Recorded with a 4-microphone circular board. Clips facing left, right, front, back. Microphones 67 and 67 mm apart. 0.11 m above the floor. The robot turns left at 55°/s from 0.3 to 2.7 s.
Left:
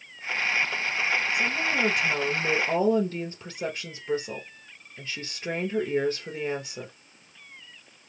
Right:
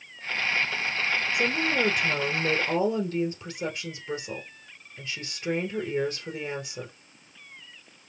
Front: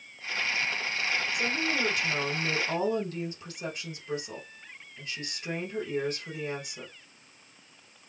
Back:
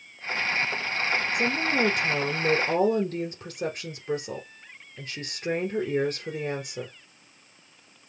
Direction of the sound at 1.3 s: 135° right.